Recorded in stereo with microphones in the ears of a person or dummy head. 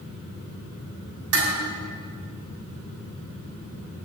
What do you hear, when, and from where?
1.3 s dishes clattering: 85° right, 7 m